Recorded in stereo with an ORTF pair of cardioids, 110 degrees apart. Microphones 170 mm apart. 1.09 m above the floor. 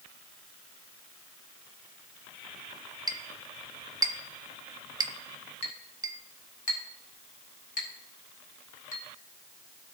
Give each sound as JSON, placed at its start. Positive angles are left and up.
{"t": 3.1, "sound": "a clink", "azimuth_deg": -20, "distance_m": 0.8}
{"t": 5.6, "sound": "a clink", "azimuth_deg": 50, "distance_m": 2.0}